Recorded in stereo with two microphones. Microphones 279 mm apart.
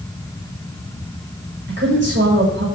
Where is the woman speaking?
45° right (ahead or behind), 7 m.